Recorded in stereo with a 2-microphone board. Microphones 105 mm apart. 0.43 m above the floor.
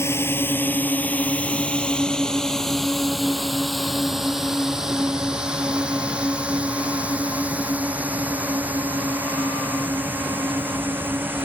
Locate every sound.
0.0 s a drone: 25° left (ahead or behind); by 11.4 s 20° right (ahead or behind)